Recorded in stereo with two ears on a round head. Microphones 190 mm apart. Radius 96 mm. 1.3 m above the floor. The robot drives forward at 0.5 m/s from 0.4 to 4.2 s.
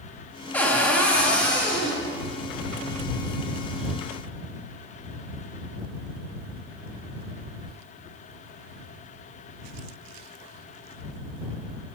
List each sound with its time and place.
0.5 s a cupboard door: 10° left (ahead or behind), 0.9 m; by 2.0 s 5° left (ahead or behind), 1.6 m